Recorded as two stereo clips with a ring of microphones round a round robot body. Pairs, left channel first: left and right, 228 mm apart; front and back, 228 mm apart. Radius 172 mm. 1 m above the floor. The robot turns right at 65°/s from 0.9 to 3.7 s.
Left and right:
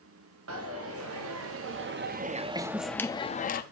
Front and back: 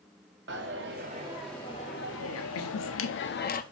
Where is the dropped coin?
125° right, 0.6 m; by 3.6 s 50° left, 0.6 m.